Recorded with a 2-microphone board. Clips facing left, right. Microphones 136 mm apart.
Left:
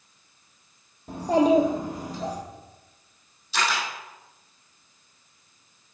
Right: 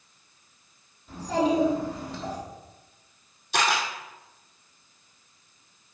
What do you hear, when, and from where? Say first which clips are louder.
1.1 s a child speaking: left 5 dB; 60° left (ahead or behind), 3.5 m; by 2.4 s 40° left (ahead or behind), 4.5 m
3.5 s a camera shutter: right 2 dB; 60° right (ahead or behind), 2.5 m